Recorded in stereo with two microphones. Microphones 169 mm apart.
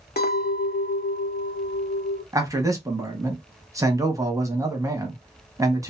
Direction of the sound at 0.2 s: 70° left (ahead or behind).